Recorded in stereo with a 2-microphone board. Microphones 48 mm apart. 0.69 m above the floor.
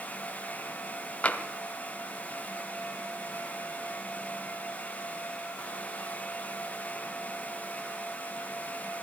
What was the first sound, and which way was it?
Tapping, 30° left (ahead or behind).